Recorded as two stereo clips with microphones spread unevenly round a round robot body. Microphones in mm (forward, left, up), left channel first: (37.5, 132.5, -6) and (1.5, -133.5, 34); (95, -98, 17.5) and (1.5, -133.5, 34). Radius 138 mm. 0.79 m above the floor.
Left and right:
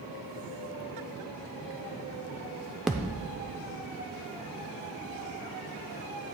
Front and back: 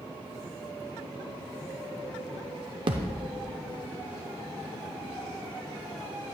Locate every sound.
2.9 s a thud: straight behind, 0.5 m